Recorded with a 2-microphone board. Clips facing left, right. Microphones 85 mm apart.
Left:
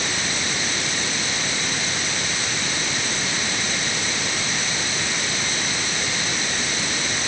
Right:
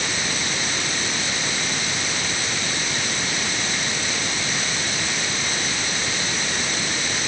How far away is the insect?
No insect in this recording.